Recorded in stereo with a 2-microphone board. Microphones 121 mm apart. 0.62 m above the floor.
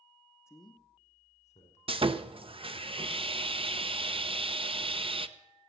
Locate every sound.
0.5 s a man speaking: 20° left (ahead or behind), 0.9 m; by 1.8 s 70° left (ahead or behind), 2.5 m
1.9 s sawing: 50° right (ahead or behind), 0.6 m